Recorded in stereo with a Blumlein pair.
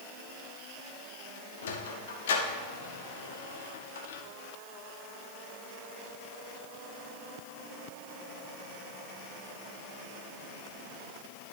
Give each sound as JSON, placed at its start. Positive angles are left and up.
{"t": 1.6, "sound": "a sliding door", "azimuth_deg": 60, "distance_m": 0.8}